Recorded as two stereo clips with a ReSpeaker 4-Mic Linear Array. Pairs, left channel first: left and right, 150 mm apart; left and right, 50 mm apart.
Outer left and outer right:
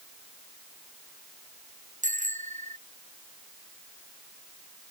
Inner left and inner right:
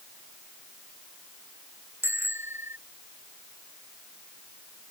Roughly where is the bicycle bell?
Right.